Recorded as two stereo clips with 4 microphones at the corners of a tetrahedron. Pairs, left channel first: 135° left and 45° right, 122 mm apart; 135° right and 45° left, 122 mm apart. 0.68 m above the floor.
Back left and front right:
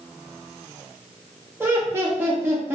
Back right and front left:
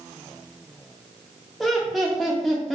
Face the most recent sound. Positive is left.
turn(degrees=-45)